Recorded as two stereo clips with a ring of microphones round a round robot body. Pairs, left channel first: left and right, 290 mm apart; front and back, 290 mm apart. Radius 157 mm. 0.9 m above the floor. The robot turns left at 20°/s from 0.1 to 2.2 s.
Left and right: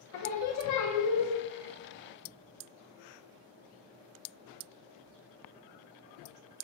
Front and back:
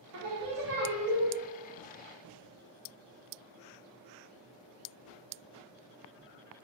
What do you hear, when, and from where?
0.1 s singing: 135° left, 0.5 m; by 1.3 s 110° left, 0.5 m